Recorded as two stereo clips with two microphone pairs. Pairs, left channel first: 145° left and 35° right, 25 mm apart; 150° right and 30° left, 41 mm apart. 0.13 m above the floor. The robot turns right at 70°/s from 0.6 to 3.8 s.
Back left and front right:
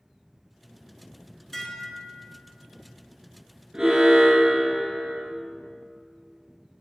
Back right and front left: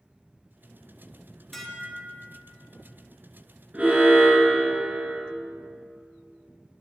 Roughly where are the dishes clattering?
Behind left.